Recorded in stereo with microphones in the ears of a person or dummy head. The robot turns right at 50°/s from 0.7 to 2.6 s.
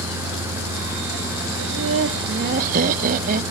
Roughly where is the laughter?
Right.